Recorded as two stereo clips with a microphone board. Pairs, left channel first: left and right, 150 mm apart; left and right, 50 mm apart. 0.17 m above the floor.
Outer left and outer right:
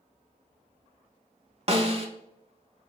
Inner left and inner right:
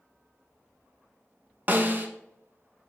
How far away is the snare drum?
About 0.6 m.